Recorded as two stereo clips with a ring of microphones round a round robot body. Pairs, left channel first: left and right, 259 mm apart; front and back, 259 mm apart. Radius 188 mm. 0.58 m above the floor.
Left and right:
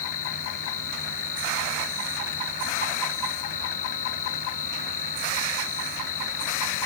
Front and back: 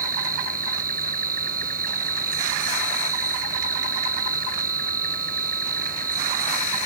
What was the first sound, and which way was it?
An insect, 120° left.